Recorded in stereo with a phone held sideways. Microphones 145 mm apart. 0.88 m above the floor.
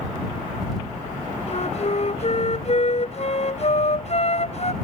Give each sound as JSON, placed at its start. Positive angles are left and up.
{"t": 1.5, "sound": "a flute", "side_deg": 50}